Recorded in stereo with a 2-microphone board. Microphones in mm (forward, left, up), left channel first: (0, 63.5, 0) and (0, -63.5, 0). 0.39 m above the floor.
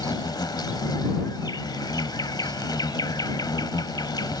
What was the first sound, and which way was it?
An insect, 35° left (ahead or behind).